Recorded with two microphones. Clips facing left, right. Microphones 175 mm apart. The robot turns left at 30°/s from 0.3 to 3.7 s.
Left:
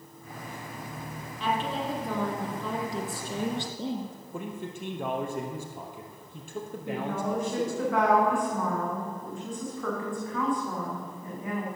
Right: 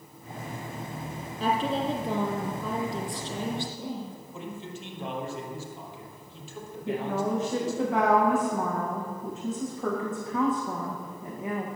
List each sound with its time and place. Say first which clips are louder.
1.4 s a woman speaking: right 3 dB; 135° right, 3 m; by 4.2 s 155° left, 3 m
4.3 s a man speaking: left 3 dB; 55° left (ahead or behind), 3 m
6.9 s a woman speaking: right 3 dB; 20° right (ahead or behind), 6.5 m